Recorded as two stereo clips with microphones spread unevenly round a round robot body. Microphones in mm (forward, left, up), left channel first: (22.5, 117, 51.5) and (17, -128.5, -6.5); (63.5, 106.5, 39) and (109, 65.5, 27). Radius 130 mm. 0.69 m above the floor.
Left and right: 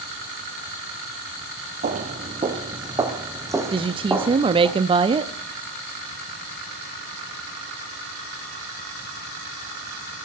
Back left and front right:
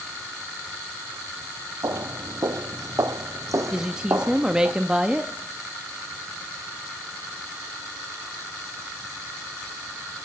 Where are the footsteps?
30° right, 1.0 m; by 4.7 s 5° right, 2.5 m.